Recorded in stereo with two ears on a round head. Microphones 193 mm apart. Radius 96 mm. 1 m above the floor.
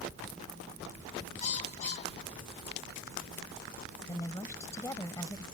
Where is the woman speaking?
15° left (ahead or behind).